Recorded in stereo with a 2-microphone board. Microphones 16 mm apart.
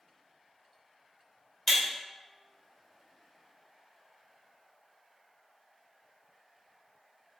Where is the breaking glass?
25° left (ahead or behind), 1.3 m.